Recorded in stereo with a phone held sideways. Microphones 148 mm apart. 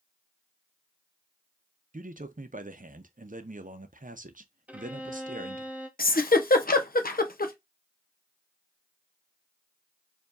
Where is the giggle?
75° left (ahead or behind), 0.5 m.